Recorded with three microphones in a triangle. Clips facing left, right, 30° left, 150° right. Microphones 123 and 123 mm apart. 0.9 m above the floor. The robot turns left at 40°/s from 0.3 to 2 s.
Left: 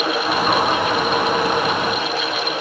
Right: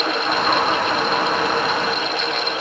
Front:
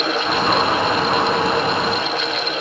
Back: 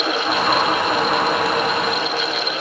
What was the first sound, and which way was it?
Only background noise.